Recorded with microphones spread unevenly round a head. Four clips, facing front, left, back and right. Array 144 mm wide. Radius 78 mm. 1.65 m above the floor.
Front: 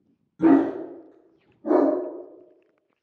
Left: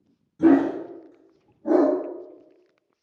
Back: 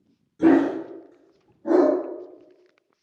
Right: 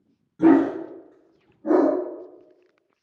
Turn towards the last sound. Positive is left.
turn(degrees=25)